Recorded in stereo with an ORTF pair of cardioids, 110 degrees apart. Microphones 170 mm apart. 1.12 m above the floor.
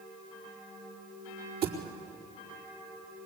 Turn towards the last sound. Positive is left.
turn(degrees=-70)